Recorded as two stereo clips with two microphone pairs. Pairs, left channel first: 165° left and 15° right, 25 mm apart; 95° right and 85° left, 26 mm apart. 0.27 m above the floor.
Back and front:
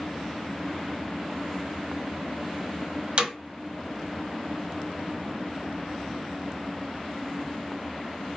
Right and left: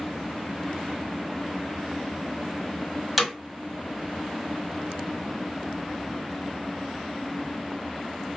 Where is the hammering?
Straight ahead, 1.0 m.